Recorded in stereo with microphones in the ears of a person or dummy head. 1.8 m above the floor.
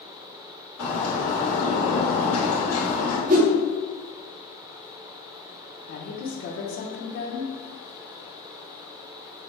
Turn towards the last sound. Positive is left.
turn(degrees=35)  # may be behind; listen again after turning